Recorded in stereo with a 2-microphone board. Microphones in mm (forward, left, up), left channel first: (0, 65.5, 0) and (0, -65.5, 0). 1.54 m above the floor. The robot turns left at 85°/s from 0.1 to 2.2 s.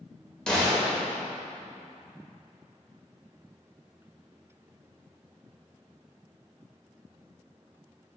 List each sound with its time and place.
0.5 s a gunshot: 5° left (ahead or behind), 1.3 m; by 1.2 s 10° right (ahead or behind), 1.3 m